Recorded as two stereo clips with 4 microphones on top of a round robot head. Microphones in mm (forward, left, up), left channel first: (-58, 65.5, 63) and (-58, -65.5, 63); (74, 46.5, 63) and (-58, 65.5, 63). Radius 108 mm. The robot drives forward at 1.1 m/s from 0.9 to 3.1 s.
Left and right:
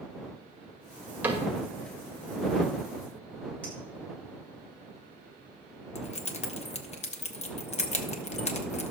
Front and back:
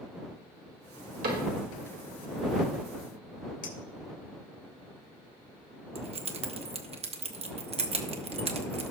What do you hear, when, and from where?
1.2 s a cupboard door: 165° right, 2 m; by 1.5 s 170° right, 2.5 m
3.6 s a clink: 10° left, 1.9 m
6.0 s keys jangling: 130° left, 1.0 m